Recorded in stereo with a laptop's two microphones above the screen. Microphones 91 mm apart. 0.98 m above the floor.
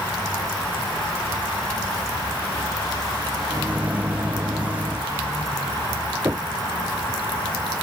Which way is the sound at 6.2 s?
25° right (ahead or behind).